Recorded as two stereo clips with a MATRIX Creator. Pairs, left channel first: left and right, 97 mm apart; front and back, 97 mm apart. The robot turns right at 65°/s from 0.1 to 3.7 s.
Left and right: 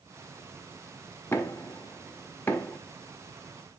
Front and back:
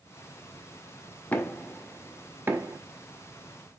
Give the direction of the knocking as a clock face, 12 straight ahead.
10 o'clock.